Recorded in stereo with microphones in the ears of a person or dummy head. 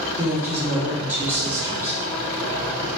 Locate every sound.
0.2 s a woman speaking: 15° right (ahead or behind), 1.8 m